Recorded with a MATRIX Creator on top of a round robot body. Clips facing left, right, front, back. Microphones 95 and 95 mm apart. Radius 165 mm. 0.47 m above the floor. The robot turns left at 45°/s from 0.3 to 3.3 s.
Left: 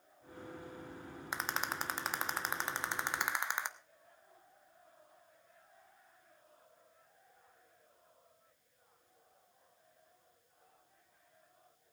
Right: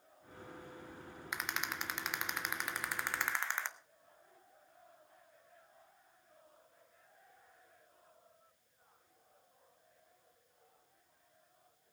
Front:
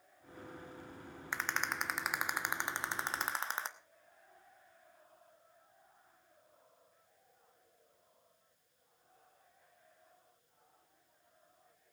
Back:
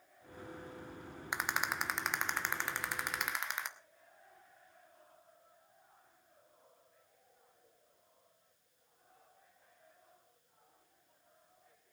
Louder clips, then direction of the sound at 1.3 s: Left 3 dB, back 1 dB; 115° left.